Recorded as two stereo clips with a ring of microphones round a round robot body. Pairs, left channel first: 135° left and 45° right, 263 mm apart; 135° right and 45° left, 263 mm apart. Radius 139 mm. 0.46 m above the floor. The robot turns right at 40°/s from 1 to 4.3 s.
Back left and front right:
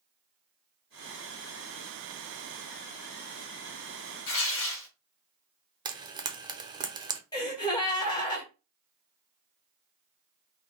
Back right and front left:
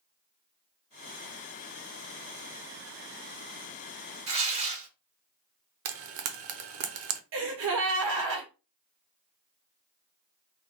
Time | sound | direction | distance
4.3 | tearing paper | 105° left | 2 m
5.8 | frying | 25° left | 0.7 m
7.3 | a gasp | 65° left | 1.5 m